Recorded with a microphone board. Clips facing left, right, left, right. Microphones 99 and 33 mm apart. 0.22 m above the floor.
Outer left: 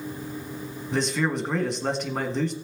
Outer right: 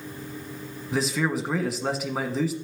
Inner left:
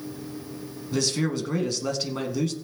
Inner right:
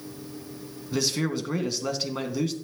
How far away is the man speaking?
About 1.8 m.